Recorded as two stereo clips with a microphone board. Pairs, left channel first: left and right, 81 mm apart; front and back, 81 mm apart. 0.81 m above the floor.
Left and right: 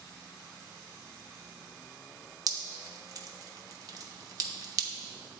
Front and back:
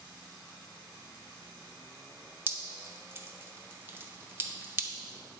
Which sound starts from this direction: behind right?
Dripping, at 2.5 s.